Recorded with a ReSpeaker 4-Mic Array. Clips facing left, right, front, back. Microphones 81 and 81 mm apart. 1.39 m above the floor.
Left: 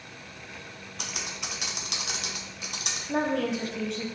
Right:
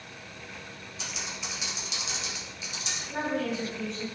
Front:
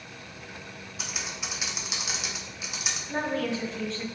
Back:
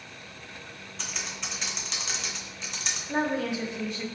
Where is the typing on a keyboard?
85° left, 0.7 m.